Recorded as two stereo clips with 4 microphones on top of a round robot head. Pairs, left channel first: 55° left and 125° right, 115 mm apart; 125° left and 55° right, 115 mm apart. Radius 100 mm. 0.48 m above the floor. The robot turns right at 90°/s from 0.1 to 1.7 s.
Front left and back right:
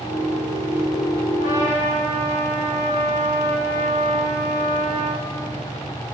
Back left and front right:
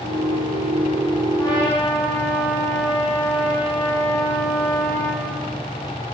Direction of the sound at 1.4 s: 60° left.